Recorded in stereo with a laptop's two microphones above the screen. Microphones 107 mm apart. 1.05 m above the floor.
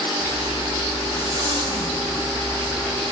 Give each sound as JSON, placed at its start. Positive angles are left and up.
{"t": 0.2, "sound": "a zipper", "side_deg": -45, "distance_m": 4.5}